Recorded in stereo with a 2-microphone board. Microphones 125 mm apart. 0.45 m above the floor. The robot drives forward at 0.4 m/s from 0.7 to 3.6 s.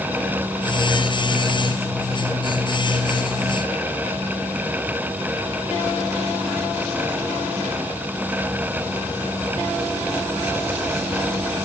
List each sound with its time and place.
Only background noise.